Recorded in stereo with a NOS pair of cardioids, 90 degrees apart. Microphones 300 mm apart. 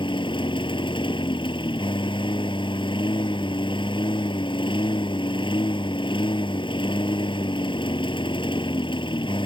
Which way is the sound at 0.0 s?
15° left.